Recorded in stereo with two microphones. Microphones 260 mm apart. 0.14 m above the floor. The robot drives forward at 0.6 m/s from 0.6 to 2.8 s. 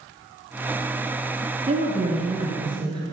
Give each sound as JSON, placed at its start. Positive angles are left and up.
{"t": 1.7, "sound": "a woman speaking", "side_deg": -25, "distance_m": 1.2}